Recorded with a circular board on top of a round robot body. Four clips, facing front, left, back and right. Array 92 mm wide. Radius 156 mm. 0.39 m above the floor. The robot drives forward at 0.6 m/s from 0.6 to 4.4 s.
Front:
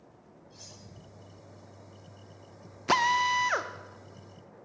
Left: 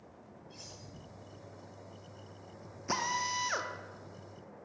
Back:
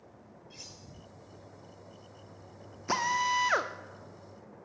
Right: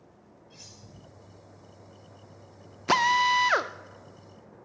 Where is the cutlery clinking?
165° right, 7 m; by 0.8 s 170° right, 7 m.